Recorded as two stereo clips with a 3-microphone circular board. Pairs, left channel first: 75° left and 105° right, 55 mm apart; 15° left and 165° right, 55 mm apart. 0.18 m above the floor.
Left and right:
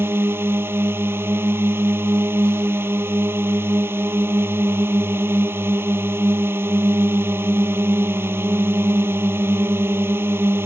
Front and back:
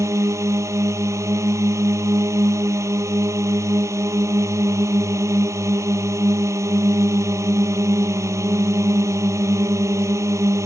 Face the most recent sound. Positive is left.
turn(degrees=-150)